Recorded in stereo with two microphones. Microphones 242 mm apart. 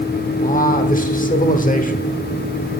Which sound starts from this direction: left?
A man speaking, at 0.4 s.